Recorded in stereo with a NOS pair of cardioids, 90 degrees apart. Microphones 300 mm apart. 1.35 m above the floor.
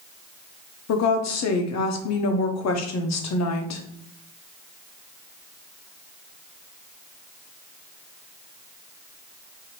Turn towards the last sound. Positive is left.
turn(degrees=65)